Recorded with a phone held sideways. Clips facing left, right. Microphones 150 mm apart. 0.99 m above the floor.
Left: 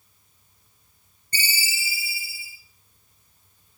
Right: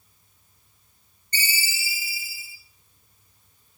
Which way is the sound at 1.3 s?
30° left (ahead or behind).